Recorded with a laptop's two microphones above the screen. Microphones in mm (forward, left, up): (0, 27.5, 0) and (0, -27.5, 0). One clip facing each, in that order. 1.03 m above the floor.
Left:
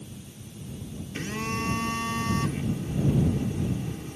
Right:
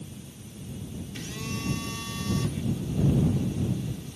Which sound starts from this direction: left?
A phone buzzing, at 1.1 s.